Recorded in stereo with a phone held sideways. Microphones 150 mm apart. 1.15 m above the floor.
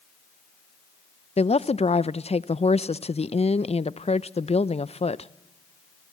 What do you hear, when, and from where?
1.4 s a woman speaking: 40° left (ahead or behind), 0.5 m